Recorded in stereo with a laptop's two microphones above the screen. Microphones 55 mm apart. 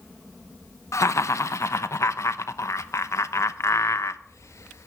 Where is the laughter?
70° left (ahead or behind), 0.7 m.